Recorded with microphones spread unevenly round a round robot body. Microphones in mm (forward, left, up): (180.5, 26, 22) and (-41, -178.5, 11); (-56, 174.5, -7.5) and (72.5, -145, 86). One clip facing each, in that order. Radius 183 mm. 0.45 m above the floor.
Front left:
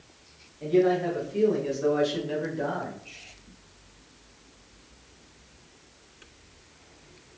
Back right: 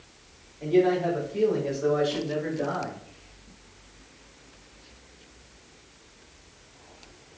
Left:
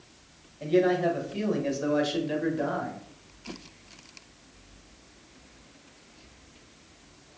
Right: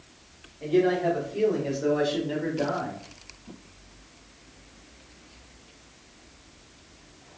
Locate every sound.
0.6 s a man speaking: 110° left, 2.5 m; by 3.0 s 70° left, 1.9 m